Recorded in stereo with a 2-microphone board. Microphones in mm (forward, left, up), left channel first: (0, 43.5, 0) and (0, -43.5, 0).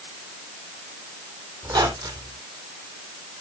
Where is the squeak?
55° right (ahead or behind), 3 m.